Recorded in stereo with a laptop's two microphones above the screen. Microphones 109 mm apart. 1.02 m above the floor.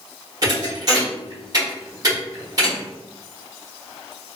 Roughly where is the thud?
Right.